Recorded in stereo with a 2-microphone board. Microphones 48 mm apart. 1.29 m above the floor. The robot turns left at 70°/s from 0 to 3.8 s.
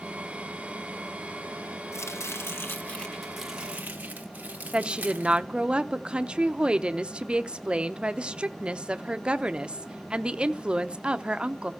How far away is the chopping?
About 1.4 m.